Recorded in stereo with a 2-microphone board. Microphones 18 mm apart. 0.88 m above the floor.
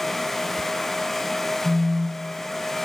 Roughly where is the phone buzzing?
Left.